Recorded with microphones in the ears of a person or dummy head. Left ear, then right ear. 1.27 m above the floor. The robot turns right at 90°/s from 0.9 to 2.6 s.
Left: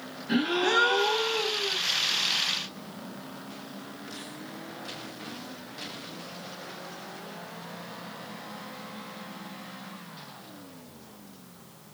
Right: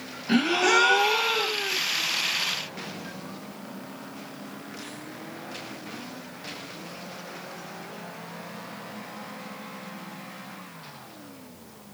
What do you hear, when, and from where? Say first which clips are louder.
0.3 s a gasp: right 4 dB; 100° right, 1.3 m; by 1.8 s 20° right, 1.3 m